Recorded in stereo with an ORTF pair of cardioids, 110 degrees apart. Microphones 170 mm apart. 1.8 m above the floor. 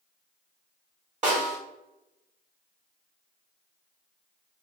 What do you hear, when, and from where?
1.2 s a snare drum: 45° right, 1.5 m